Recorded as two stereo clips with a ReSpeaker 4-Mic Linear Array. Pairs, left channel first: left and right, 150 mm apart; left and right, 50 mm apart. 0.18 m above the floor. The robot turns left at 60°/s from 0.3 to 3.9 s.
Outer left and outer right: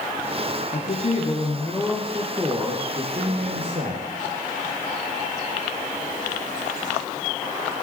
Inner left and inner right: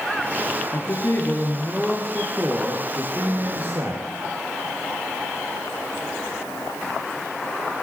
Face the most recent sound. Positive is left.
turn(degrees=-110)